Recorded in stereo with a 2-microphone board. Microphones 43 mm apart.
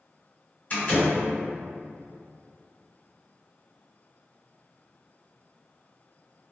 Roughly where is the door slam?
Left.